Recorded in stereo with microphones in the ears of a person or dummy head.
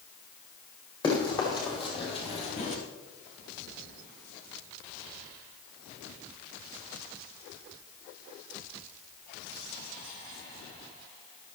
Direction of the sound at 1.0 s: 25° left (ahead or behind).